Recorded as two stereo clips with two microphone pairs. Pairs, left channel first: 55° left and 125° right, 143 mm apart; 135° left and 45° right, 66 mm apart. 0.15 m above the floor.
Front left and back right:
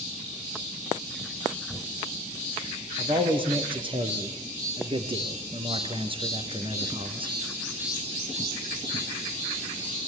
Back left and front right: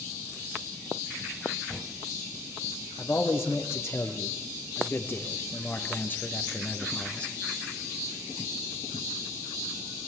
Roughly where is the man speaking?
Behind.